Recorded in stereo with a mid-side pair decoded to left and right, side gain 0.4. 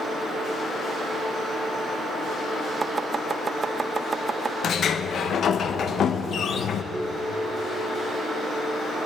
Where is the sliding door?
60° left, 0.9 m.